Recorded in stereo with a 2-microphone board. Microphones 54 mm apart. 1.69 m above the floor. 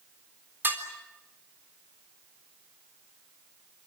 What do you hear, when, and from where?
0.6 s dishes clattering: 40° right (ahead or behind), 3.5 m